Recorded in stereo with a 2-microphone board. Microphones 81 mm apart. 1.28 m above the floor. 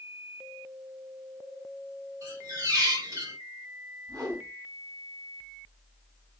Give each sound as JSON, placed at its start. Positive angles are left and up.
{"t": 2.2, "sound": "a squeak", "side_deg": -50, "distance_m": 1.9}
{"t": 4.1, "sound": "a whoosh", "side_deg": -45, "distance_m": 1.9}